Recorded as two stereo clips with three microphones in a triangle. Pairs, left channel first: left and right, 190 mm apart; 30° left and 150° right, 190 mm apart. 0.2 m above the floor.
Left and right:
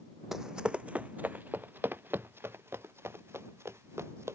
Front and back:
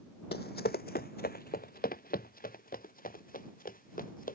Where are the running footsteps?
Straight ahead; by 4.4 s 15° right.